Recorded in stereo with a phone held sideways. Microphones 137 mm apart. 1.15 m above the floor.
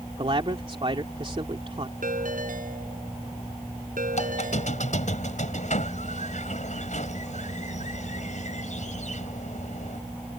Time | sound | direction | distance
0.2 | a man speaking | 40° right (ahead or behind) | ?
2.0 | a ringtone | 70° right (ahead or behind) | ?
4.1 | a squeak | 60° left (ahead or behind) | ?